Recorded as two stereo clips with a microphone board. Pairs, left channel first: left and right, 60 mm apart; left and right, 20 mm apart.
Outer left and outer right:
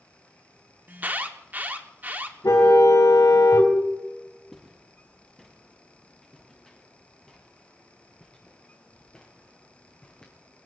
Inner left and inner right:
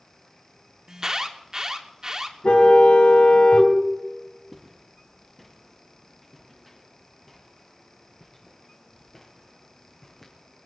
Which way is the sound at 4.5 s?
5° left (ahead or behind).